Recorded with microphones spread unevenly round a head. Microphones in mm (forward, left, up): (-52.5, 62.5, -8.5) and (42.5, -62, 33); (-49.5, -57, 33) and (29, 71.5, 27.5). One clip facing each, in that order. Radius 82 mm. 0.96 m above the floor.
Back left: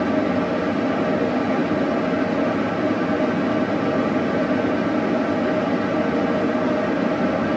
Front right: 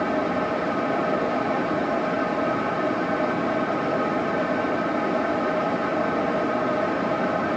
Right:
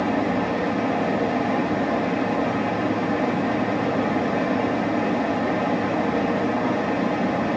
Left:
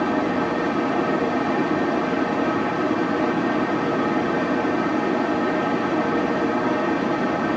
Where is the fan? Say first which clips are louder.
Back left 4 dB, left 1 dB; 170° left, 2.5 m.